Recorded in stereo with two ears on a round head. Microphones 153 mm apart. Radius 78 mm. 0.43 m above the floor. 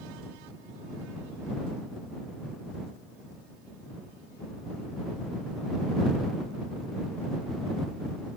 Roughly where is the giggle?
I don't hear a giggle.